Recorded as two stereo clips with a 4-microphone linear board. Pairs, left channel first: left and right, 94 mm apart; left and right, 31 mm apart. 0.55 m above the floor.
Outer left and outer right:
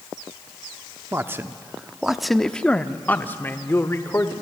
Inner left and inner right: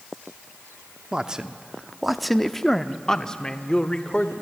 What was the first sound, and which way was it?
A man speaking, 25° right (ahead or behind).